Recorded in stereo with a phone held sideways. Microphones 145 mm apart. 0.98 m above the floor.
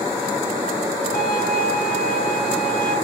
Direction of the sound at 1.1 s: 85° left.